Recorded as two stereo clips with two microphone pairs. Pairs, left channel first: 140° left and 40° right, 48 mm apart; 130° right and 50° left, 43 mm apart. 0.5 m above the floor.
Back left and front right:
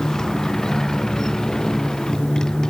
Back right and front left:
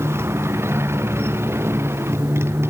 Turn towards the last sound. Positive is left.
turn(degrees=65)